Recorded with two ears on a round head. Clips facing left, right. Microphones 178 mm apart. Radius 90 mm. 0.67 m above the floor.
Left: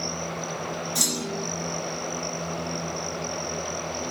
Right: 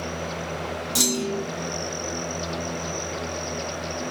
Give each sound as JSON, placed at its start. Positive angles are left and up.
{"t": 0.9, "sound": "a clunk", "side_deg": -75, "distance_m": 0.8}